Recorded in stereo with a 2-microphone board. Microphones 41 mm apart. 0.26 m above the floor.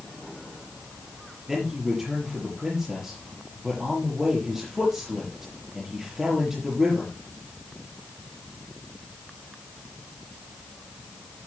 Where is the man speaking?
10° right (ahead or behind), 6 m.